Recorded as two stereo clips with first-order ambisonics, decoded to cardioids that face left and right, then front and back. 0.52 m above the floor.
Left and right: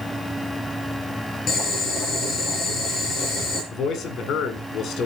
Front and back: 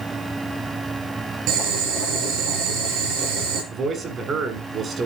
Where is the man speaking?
130° left, 1.6 m.